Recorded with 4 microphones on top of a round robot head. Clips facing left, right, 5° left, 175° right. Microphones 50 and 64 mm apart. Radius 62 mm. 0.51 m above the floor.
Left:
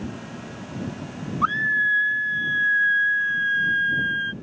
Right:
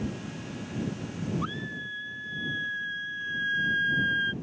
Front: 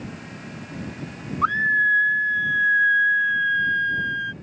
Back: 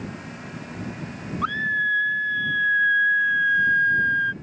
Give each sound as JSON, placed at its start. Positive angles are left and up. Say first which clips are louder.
{"t": 1.4, "sound": "a scream", "louder": "left 14 dB, front 4 dB", "azimuth_deg": 65}